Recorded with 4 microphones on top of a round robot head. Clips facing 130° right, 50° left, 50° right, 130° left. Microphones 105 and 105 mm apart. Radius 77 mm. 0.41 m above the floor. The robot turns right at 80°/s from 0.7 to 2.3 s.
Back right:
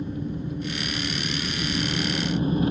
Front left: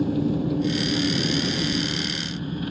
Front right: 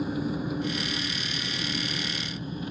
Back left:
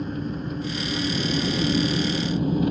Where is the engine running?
35° left; by 2.7 s 165° left.